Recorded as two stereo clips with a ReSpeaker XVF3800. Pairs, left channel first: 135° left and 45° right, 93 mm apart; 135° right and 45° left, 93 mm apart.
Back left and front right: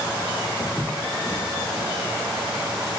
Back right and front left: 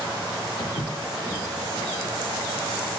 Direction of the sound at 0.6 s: 155° right.